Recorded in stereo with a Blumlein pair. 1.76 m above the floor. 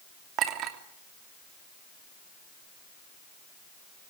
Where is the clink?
35° right, 3 m.